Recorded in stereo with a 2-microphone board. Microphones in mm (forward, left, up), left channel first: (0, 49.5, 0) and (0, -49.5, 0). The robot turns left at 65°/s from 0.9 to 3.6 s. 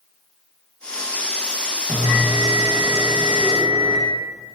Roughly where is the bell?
Ahead right.